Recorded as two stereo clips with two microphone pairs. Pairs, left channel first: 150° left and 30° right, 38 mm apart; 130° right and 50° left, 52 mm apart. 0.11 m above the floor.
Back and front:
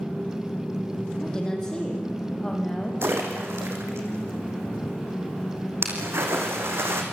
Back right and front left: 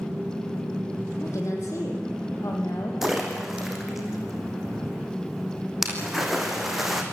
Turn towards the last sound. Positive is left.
turn(degrees=-35)